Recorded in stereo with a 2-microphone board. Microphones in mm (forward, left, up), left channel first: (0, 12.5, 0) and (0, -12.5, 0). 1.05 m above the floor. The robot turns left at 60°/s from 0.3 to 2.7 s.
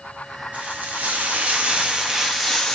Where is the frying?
65° right, 1.4 m; by 2.8 s 165° left, 1.4 m.